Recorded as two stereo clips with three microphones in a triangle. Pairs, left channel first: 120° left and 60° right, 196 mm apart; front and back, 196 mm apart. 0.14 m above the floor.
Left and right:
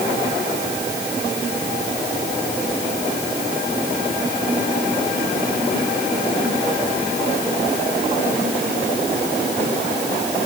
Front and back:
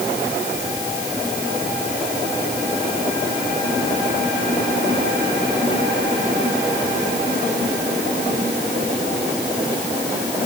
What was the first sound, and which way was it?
Only background noise.